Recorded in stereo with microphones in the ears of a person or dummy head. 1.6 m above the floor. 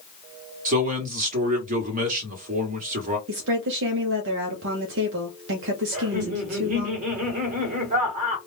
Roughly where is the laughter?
Right.